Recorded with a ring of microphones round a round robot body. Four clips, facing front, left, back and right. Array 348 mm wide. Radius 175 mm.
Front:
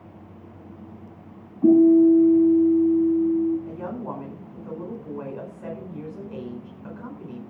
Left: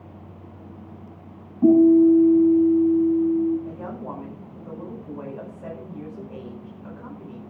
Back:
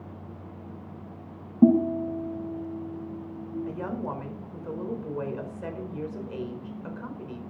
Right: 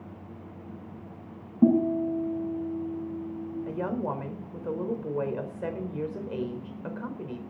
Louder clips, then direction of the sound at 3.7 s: Right 3 dB, even; 95° right.